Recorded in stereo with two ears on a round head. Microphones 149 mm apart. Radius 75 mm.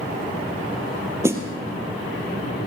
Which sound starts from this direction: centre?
A snare drum, at 1.2 s.